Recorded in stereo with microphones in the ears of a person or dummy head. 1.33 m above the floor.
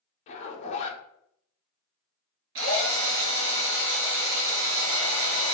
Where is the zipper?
45° left (ahead or behind), 0.9 m.